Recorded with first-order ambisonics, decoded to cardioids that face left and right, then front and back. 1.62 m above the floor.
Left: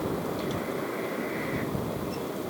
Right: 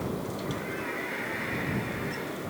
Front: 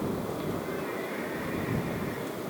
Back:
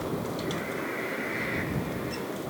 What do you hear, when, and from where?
Only background noise.